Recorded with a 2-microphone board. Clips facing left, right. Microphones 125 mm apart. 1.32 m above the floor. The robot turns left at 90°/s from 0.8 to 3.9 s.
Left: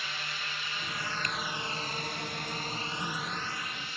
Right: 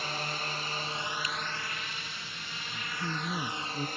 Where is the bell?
No bell in this recording.